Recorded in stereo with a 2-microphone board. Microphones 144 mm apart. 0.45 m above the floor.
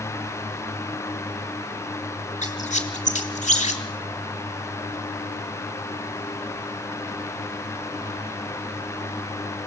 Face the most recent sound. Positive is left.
turn(degrees=55)  # may be behind; listen again after turning